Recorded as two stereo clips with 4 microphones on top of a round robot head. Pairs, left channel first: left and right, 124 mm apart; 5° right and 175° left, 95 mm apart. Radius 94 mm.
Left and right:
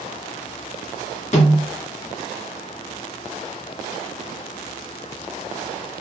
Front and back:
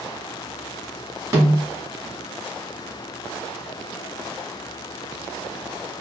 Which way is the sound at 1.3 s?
120° left.